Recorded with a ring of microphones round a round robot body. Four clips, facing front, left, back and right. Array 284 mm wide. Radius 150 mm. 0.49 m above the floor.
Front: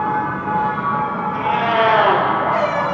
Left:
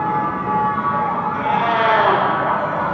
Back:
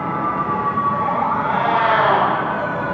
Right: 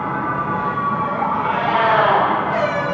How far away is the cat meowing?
About 5 m.